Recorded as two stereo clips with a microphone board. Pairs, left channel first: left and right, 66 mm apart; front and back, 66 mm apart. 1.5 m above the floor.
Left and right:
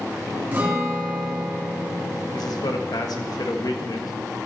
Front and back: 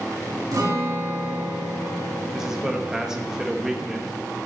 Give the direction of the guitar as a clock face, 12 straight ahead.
5 o'clock.